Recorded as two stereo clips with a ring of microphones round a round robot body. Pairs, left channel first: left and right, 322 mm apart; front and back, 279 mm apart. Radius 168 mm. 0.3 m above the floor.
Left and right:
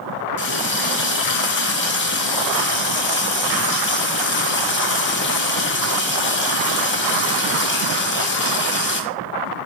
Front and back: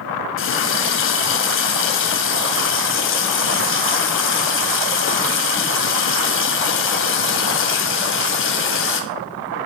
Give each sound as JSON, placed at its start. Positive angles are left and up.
{"t": 0.4, "sound": "a running tap", "azimuth_deg": 40, "distance_m": 1.7}